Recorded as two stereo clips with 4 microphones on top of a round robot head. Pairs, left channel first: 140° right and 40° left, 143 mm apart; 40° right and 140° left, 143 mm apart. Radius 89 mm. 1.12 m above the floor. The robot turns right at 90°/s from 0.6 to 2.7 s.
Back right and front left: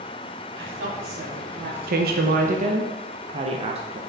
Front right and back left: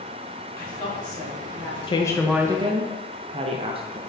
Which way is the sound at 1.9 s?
15° left.